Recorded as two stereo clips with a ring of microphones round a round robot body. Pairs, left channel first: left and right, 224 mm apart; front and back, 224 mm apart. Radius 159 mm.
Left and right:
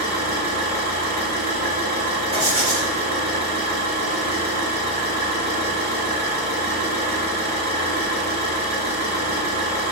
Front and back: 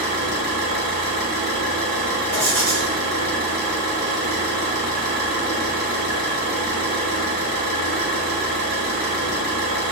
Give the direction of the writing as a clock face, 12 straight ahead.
5 o'clock.